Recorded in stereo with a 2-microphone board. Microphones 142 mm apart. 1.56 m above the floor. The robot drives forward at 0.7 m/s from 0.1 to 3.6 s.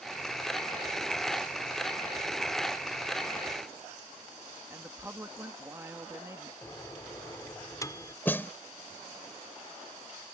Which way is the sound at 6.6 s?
25° left (ahead or behind).